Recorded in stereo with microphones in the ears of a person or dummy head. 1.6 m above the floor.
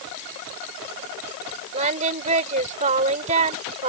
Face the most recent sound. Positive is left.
turn(degrees=-45)  # may be behind; listen again after turning